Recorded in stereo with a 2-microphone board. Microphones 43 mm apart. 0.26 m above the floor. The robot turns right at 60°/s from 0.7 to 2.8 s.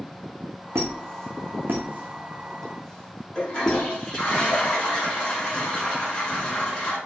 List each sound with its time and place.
0.8 s a squeak: 70° right (ahead or behind), 1.1 m; by 3.8 s 15° left (ahead or behind), 1.1 m
3.4 s a toilet flushing: 20° left (ahead or behind), 3 m